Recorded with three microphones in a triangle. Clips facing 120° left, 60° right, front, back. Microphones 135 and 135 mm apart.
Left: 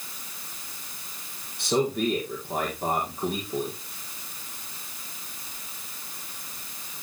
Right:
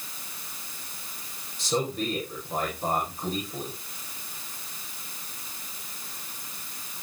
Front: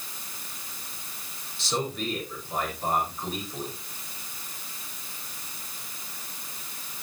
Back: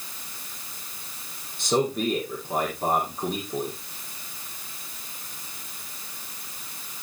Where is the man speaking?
145° left, 6 m.